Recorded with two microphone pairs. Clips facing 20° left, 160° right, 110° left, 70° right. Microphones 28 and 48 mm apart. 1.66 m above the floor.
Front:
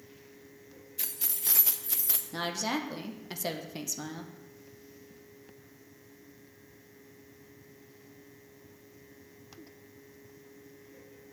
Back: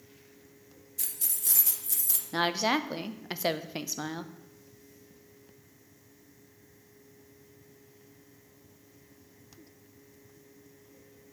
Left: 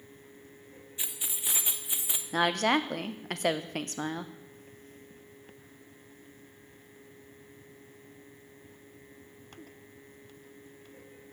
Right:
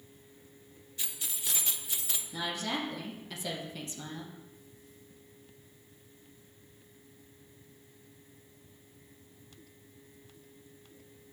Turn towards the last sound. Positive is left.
turn(degrees=140)